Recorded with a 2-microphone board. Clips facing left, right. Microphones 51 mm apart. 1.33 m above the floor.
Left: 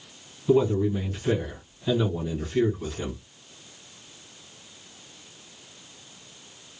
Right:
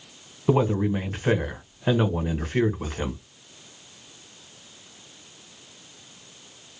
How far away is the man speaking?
About 1.0 m.